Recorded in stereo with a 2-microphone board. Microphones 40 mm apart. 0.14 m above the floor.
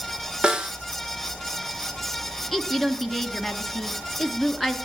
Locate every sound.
0.4 s a snare drum: 25° right (ahead or behind), 1.7 m
2.5 s a woman speaking: centre (ahead or behind), 2 m